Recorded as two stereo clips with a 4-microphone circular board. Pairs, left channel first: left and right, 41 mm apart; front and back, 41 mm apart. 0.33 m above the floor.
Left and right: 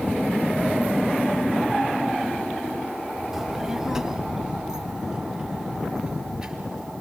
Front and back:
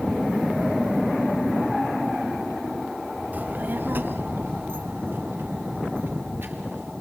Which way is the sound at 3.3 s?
165° right.